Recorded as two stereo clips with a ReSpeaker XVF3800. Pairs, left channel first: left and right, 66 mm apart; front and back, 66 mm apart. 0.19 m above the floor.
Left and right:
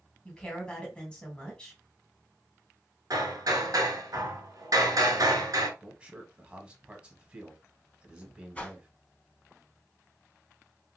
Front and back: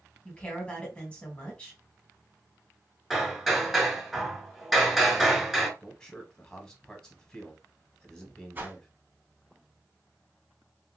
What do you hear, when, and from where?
0.2 s a woman speaking: 40° left, 1.3 m
3.1 s hammering: 95° right, 1.0 m
5.8 s a man speaking: 60° right, 1.0 m
8.6 s a whoosh: 145° left, 0.8 m